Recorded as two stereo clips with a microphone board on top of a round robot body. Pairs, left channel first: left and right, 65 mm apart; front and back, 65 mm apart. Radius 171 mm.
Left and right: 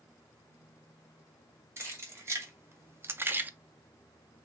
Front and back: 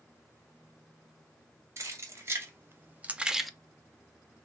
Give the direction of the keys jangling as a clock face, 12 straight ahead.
5 o'clock.